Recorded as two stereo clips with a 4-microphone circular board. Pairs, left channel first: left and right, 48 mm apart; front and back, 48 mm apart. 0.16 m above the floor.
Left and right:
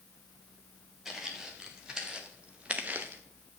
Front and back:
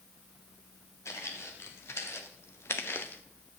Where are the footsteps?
5° right, 4 m; by 3.2 s 45° right, 1.4 m.